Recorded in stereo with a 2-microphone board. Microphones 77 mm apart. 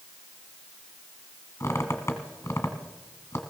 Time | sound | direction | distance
1.6 | a squeak | 35° left (ahead or behind) | 1.6 m